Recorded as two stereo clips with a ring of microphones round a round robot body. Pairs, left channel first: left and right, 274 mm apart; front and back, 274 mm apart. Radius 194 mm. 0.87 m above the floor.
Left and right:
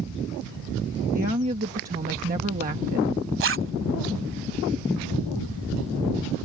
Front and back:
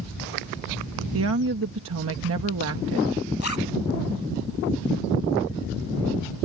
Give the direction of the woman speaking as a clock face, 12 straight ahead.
5 o'clock.